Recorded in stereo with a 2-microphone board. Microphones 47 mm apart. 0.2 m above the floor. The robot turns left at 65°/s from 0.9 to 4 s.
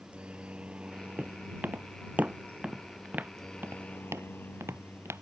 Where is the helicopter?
25° right; by 5.2 s 130° left.